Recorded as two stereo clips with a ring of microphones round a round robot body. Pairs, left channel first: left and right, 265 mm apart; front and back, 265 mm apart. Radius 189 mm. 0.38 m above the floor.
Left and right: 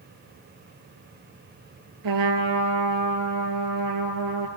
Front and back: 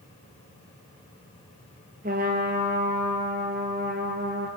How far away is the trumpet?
About 1.5 m.